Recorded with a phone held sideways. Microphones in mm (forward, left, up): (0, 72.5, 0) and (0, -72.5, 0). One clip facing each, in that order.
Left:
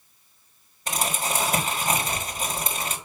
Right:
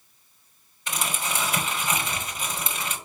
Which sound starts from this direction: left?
Crumpling, at 0.9 s.